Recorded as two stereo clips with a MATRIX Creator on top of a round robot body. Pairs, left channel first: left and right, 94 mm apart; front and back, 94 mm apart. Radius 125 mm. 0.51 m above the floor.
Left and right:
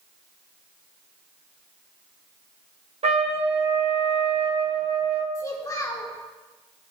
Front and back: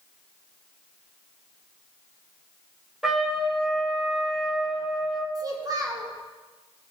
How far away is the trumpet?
About 0.9 m.